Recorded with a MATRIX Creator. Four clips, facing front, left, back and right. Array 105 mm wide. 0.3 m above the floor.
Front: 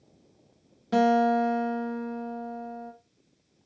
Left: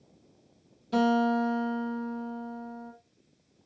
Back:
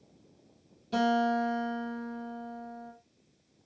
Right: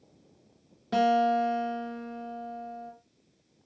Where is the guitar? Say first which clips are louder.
Right 1 dB, front 5 dB; 45° right, 1.4 m.